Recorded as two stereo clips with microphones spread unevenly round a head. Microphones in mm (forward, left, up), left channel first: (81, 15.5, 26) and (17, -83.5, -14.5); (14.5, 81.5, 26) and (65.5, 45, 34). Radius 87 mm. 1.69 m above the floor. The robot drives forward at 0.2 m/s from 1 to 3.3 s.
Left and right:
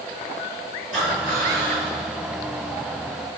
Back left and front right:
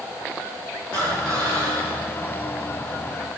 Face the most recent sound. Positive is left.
turn(degrees=-175)